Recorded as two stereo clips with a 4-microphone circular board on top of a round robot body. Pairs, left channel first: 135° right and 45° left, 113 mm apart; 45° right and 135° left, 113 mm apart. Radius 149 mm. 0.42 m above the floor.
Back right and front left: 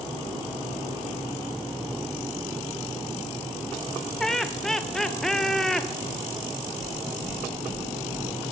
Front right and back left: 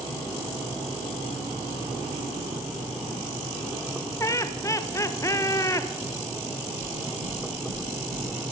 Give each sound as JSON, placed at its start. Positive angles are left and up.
{"t": 4.2, "sound": "laughter", "azimuth_deg": -55, "distance_m": 0.8}
{"t": 6.8, "sound": "knocking", "azimuth_deg": 120, "distance_m": 3.5}